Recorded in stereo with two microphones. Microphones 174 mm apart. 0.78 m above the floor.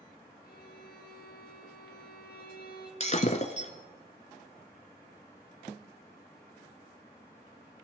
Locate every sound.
0.4 s a violin: 65° left (ahead or behind), 4 m
3.0 s breaking glass: 45° left (ahead or behind), 1.2 m